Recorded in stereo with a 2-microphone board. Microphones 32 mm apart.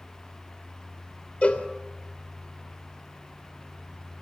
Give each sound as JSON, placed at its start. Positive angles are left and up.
{"t": 1.4, "sound": "a cowbell", "side_deg": 45, "distance_m": 2.5}